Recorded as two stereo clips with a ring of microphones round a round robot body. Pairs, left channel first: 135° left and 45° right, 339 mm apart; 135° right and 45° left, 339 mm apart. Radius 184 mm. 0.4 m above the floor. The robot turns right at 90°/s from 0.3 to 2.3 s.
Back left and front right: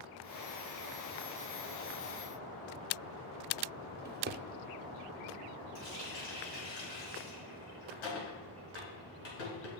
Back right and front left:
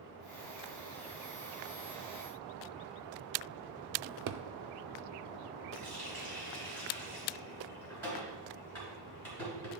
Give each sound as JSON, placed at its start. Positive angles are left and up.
{"t": 4.0, "sound": "a drawer", "azimuth_deg": 10, "distance_m": 0.5}
{"t": 5.8, "sound": "a running tap", "azimuth_deg": 140, "distance_m": 3.5}